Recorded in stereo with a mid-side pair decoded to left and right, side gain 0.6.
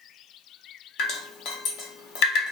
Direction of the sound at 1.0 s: 70° left.